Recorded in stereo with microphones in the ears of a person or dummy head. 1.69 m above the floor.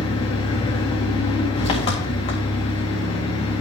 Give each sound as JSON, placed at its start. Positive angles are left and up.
{"t": 0.0, "sound": "an engine running", "side_deg": 25, "distance_m": 2.0}